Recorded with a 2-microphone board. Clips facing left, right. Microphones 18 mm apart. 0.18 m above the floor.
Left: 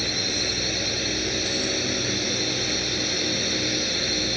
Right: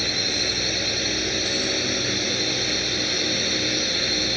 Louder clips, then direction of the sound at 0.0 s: Right 2 dB; 10° right (ahead or behind).